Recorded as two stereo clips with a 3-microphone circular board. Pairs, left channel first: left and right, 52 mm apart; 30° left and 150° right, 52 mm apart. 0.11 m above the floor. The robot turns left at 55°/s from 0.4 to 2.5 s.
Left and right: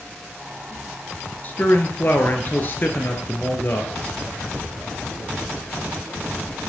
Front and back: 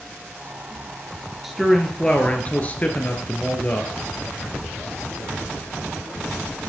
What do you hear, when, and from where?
1.4 s a man speaking: 130° left, 1.5 m; by 3.9 s 70° left, 1.5 m